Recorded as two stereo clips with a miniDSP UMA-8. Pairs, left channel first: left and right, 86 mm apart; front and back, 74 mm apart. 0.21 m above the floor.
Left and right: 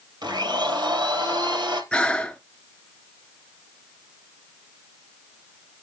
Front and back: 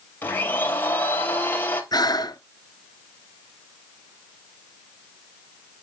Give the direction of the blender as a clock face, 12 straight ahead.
2 o'clock.